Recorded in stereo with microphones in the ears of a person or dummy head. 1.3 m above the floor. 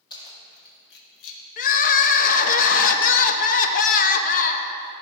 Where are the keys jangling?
30° left (ahead or behind), 1.5 m; by 1.4 s 75° left (ahead or behind), 1.6 m.